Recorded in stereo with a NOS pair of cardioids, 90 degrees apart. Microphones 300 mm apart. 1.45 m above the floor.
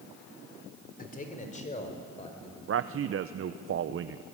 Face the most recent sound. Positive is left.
turn(degrees=-45)